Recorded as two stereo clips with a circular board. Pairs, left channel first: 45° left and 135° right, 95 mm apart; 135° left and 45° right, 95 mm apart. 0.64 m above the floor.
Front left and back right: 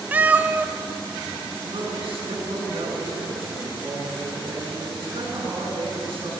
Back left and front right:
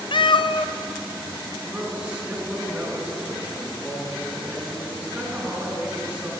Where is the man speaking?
125° right, 5.5 m.